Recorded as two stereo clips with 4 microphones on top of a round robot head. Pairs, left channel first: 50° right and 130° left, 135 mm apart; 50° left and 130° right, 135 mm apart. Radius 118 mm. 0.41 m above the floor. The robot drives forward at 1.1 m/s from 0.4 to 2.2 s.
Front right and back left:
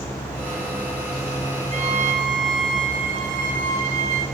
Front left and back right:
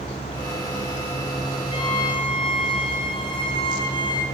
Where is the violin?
100° left, 4 m; by 4.2 s 105° left, 4 m.